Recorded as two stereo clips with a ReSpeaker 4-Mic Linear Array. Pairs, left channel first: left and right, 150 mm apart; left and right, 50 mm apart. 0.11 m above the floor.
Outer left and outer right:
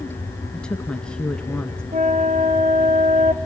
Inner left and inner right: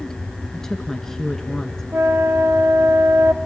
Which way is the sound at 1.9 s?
45° right (ahead or behind).